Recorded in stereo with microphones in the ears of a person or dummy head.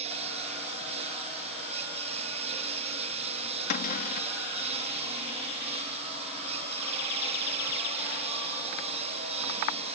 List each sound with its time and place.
0.0 s a lawn mower: 35° right (ahead or behind)
3.7 s a cupboard door: 50° left (ahead or behind)